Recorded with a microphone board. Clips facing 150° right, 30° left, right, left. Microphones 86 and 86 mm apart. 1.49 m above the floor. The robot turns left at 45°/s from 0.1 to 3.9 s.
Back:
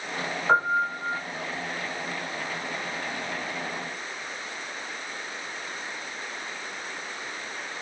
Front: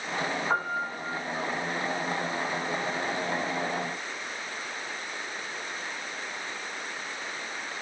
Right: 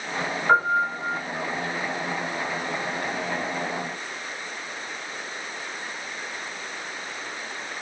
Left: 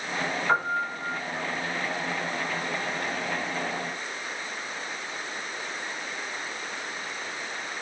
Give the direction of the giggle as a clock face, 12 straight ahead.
I don't hear a giggle.